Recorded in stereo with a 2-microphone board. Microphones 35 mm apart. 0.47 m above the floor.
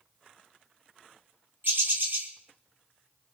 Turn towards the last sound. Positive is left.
turn(degrees=-65)  # may be behind; listen again after turning